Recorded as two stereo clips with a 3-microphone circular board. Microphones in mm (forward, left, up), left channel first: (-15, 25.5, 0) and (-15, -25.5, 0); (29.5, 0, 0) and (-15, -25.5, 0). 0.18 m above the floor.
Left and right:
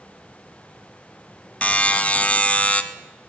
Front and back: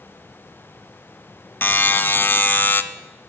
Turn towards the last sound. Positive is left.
turn(degrees=40)